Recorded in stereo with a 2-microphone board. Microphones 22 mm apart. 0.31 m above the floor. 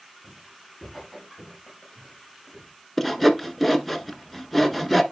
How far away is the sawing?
About 0.7 m.